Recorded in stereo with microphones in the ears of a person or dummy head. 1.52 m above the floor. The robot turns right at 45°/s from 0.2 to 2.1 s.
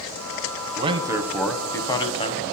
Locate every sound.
0.8 s a man speaking: 35° right, 1.1 m; by 2.4 s 25° left, 1.1 m